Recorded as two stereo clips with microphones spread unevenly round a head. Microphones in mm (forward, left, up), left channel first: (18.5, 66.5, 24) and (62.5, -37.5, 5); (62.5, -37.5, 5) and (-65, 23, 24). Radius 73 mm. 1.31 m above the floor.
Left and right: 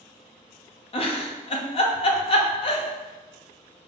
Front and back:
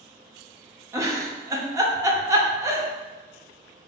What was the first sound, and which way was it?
A giggle, 85° left.